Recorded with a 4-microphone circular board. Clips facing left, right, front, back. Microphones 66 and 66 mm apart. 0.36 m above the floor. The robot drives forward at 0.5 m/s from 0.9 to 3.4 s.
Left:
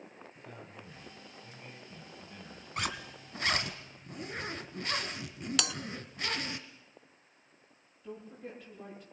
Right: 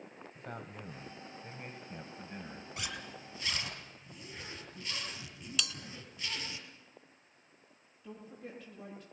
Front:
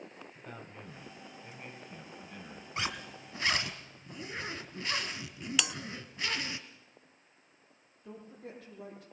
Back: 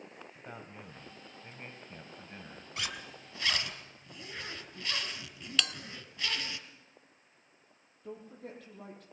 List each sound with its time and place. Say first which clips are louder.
0.3 s a man speaking: right 6 dB, back 1 dB; 105° right, 1.9 m; by 2.7 s 130° right, 2.5 m
2.8 s a zipper: left 8 dB, front 4 dB; 60° left, 1.9 m; by 6.6 s 70° left, 1.8 m
5.6 s a bell: left 1 dB, back 1 dB; 75° left, 0.6 m
8.0 s a woman speaking: left 3 dB, back 2 dB; 175° left, 10 m